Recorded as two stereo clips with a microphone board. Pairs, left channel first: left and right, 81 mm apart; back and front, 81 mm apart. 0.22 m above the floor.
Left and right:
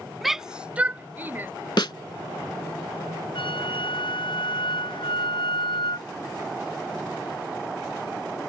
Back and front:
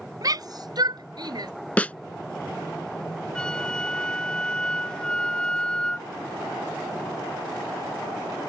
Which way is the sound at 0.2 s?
Straight ahead.